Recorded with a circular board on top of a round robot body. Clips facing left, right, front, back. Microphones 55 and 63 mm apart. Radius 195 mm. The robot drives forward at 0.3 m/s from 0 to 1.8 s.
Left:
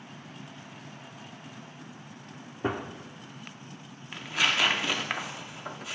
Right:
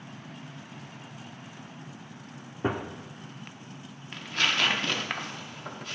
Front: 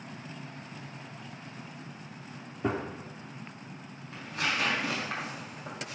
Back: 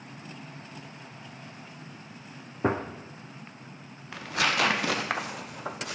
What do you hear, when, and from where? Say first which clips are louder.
2.6 s a gunshot: right 1 dB, back 4 dB; 175° right, 0.7 m
4.1 s tearing paper: left 1 dB, back 5 dB; 175° left, 0.6 m